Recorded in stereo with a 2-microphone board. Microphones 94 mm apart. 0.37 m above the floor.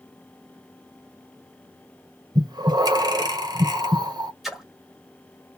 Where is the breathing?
50° right (ahead or behind), 1.9 m.